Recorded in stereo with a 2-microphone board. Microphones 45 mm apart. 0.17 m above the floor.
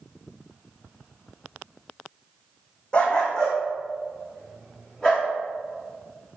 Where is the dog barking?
25° left (ahead or behind), 2 m; by 5.3 s 5° left (ahead or behind), 5.5 m.